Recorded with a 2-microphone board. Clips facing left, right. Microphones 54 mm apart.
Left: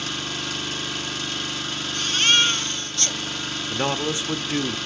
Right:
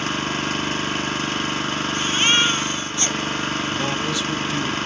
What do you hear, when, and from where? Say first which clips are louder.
0.0 s an engine running: right 6 dB; 40° right (ahead or behind), 0.8 m
1.9 s a baby crying: right 1 dB; 20° right (ahead or behind), 0.7 m
3.7 s a man speaking: right 1 dB; 25° left (ahead or behind), 0.7 m